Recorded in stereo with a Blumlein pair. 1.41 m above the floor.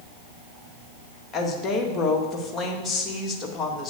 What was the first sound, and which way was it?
A woman speaking, 15° left.